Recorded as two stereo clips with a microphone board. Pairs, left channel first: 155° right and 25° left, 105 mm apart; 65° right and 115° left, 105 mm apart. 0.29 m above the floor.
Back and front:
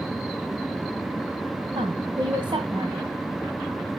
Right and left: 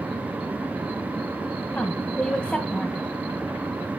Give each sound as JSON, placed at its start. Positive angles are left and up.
{"t": 1.8, "sound": "a woman speaking", "azimuth_deg": 10, "distance_m": 1.6}